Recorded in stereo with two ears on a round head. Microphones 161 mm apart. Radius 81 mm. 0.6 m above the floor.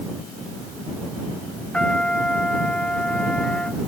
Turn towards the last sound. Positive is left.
turn(degrees=5)  # may be behind; listen again after turning